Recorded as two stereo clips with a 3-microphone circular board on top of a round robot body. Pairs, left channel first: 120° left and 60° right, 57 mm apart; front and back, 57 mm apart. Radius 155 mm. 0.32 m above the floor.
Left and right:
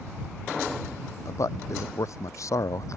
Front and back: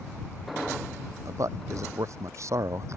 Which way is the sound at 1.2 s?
150° left.